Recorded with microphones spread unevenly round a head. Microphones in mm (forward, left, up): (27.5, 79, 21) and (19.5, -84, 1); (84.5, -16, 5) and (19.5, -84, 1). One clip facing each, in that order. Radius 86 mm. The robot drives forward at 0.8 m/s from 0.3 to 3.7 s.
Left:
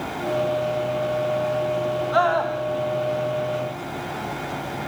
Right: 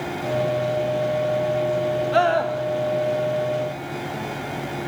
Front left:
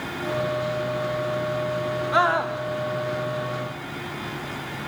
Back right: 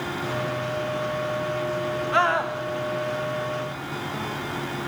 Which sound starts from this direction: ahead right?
A scream, at 2.1 s.